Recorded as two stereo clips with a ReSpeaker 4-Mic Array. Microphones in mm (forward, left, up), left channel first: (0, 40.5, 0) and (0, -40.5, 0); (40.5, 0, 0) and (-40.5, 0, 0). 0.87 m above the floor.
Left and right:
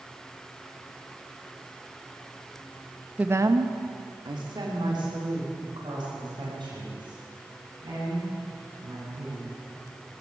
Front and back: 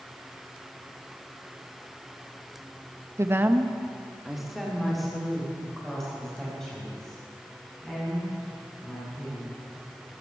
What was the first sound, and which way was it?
A woman speaking, 155° right.